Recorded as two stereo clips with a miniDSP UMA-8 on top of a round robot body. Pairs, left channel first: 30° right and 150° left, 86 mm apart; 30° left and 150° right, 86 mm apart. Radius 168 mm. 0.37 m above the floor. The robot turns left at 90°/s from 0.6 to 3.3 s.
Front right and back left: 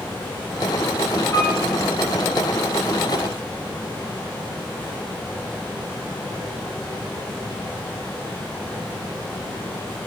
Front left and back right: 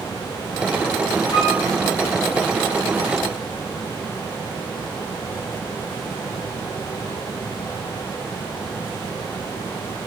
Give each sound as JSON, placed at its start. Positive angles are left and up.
{"t": 1.3, "sound": "a piano", "azimuth_deg": 30, "distance_m": 1.9}